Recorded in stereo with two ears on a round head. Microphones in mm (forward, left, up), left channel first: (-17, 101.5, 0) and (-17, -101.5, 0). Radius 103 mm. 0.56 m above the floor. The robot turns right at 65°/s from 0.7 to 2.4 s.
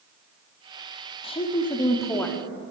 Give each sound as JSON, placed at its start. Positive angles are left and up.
{"t": 1.2, "sound": "a woman speaking", "side_deg": 25, "distance_m": 0.6}